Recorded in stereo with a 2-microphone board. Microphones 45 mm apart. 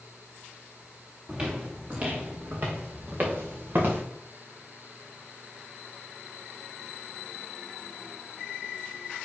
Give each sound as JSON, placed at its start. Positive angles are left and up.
{"t": 1.3, "sound": "footsteps", "side_deg": -25, "distance_m": 2.5}